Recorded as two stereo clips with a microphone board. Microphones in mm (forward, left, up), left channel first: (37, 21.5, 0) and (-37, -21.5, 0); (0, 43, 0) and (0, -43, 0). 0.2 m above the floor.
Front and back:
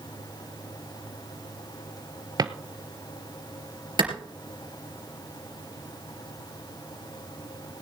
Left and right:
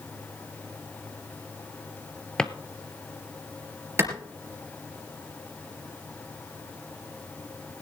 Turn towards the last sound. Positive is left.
turn(degrees=-150)